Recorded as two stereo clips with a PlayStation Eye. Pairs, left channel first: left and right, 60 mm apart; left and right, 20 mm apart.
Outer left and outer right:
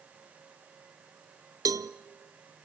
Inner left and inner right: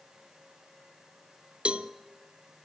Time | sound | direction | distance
1.6 | a cowbell | 80° right | 0.8 m